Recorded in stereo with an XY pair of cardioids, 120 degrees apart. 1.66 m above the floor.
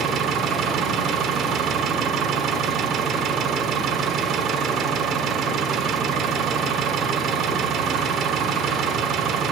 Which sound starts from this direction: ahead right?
An engine running, at 0.0 s.